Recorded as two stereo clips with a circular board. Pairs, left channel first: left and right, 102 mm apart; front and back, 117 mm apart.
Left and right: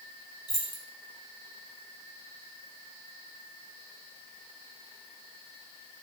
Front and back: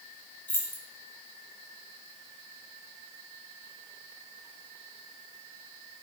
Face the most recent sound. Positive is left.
turn(degrees=65)